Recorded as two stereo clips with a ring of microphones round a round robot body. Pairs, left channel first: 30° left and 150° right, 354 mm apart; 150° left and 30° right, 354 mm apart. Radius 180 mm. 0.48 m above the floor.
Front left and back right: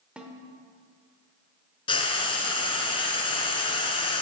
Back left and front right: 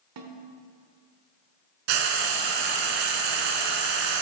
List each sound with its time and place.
0.2 s a snare drum: 65° right, 1.2 m
1.9 s frying: 45° right, 1.4 m